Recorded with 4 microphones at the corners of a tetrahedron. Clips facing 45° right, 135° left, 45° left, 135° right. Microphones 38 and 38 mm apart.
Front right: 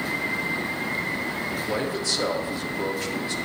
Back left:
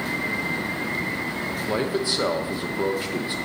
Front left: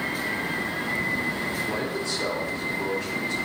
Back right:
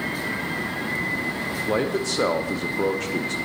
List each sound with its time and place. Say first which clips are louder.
1.7 s a man speaking: back left 5 dB, back right 4 dB; 155° right, 0.7 m